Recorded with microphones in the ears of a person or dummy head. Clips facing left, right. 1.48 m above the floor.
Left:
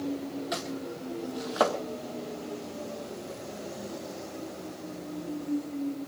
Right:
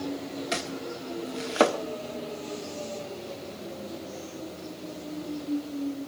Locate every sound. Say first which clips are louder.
0.5 s chopping: right 1 dB; 40° right (ahead or behind), 1.7 m